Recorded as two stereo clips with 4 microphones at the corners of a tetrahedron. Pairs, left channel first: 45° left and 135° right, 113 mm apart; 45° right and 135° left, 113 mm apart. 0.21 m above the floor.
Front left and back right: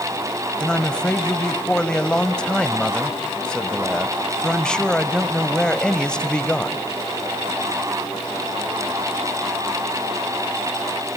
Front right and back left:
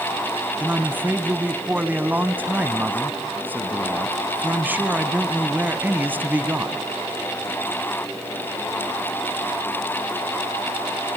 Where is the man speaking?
115° left, 1.0 m.